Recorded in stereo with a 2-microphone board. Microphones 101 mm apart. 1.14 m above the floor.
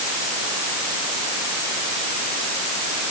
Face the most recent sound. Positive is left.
No sound to turn to.